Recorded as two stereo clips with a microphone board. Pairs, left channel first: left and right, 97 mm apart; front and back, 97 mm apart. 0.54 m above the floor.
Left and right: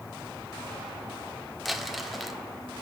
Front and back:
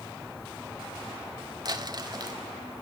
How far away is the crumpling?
About 1.5 m.